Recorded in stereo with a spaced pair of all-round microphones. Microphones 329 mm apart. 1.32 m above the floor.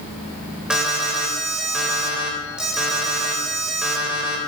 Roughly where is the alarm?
Centre.